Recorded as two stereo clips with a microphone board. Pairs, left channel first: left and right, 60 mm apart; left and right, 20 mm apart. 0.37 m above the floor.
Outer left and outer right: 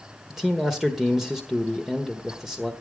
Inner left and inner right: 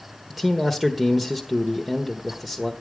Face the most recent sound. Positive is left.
turn(degrees=-5)  # may be behind; listen again after turning